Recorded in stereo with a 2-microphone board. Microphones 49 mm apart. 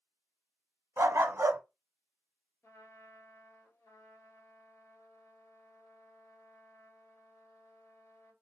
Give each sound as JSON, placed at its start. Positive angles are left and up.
{"t": 1.0, "sound": "a dog barking", "side_deg": -65, "distance_m": 0.8}
{"t": 2.6, "sound": "a trumpet", "side_deg": 85, "distance_m": 1.2}